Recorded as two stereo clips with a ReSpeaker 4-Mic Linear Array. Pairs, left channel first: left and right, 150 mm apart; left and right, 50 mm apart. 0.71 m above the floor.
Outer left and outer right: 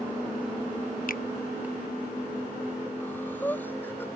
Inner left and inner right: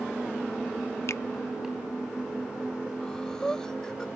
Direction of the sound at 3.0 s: 10° left (ahead or behind).